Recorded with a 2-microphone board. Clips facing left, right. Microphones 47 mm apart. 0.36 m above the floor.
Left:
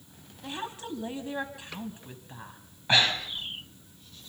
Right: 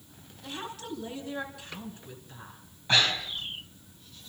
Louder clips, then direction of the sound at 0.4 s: Left 2 dB; 25° left (ahead or behind).